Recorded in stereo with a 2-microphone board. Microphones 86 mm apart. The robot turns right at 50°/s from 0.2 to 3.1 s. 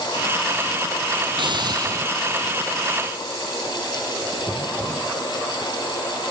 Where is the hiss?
70° right, 3 m; by 2.3 s 30° right, 3 m.